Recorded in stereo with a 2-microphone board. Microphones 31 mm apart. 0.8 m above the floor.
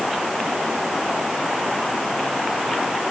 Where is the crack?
No crack in this recording.